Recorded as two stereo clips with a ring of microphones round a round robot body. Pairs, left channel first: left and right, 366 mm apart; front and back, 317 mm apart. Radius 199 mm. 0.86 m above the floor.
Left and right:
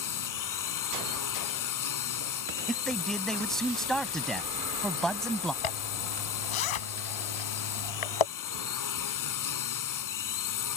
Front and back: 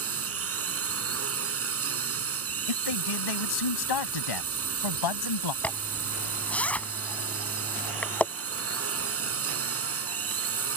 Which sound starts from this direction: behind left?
A drone, at 0.0 s.